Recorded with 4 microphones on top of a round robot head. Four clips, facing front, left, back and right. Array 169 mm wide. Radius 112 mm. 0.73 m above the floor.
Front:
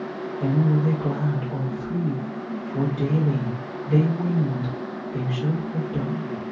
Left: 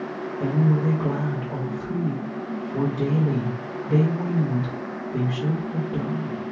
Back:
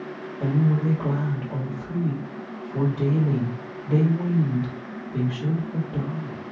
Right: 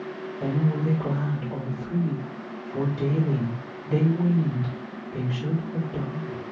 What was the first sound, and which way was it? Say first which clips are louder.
A woman speaking: left 3 dB, front 1 dB; 120° left.